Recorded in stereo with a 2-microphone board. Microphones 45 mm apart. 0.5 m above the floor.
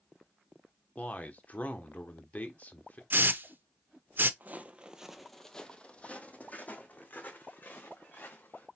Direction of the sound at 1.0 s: 40° left (ahead or behind).